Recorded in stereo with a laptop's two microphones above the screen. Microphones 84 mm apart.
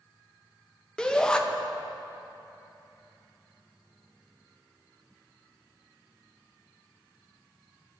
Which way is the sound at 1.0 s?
10° left (ahead or behind).